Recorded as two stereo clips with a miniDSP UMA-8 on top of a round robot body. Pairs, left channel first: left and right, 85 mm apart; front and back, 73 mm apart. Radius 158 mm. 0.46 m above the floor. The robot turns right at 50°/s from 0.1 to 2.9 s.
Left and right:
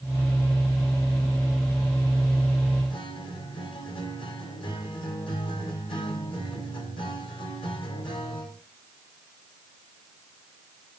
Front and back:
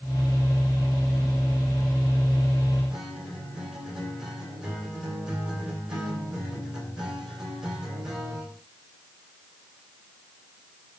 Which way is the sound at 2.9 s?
100° left.